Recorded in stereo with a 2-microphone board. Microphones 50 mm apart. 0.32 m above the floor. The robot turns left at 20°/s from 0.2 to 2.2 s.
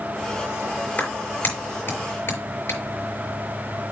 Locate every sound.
1.0 s a clap: 30° left (ahead or behind), 5.5 m; by 2.8 s 50° left (ahead or behind), 5.5 m